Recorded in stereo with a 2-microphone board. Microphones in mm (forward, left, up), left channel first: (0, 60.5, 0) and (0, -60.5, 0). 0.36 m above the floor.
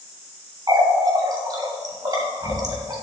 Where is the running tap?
35° right (ahead or behind), 1.4 m.